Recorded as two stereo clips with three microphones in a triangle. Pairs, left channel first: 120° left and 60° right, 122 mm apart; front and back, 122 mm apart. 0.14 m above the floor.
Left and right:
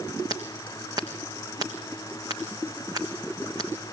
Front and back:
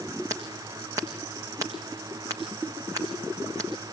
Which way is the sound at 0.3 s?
120° right.